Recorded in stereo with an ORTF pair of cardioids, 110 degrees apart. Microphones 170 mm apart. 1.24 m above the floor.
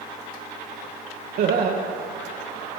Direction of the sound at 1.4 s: 60° right.